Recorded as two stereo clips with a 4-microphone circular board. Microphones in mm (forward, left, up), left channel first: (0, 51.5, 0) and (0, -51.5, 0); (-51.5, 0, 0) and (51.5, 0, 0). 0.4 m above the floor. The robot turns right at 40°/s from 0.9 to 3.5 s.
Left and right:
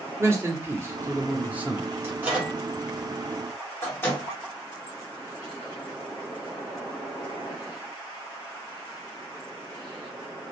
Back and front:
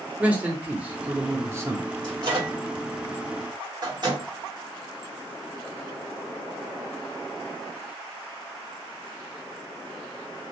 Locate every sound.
0.2 s a man speaking: 60° right, 0.9 m; by 1.9 s 20° right, 0.9 m
2.0 s a microwave: 30° right, 1.8 m; by 4.2 s 30° left, 1.8 m